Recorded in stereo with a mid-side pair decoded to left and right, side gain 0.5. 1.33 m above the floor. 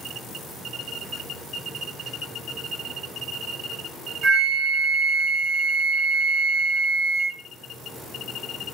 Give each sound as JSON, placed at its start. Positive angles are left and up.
{"t": 4.2, "sound": "a flute", "azimuth_deg": -55, "distance_m": 1.4}